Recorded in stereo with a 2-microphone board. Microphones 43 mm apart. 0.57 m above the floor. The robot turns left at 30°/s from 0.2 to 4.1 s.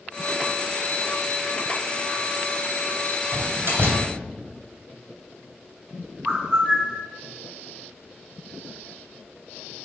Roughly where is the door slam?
Right.